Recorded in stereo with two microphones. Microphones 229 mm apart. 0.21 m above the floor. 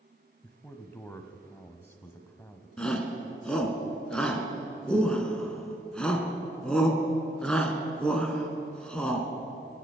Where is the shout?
5° left (ahead or behind), 1.9 m.